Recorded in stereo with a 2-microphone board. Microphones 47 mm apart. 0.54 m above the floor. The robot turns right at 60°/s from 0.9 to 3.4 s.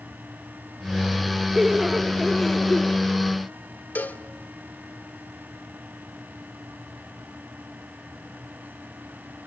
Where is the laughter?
10° right (ahead or behind), 1.1 m; by 3.0 s 20° left (ahead or behind), 1.1 m.